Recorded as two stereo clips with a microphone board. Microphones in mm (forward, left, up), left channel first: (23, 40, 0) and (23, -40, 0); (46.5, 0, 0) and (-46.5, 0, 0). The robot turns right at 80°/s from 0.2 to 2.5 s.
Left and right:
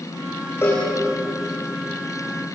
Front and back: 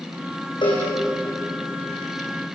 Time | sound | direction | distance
0.6 | a cowbell | 30° left | 9 m